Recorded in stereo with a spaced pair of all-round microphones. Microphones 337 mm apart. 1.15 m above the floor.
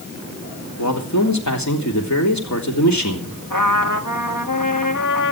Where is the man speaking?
55° left (ahead or behind), 3.5 m.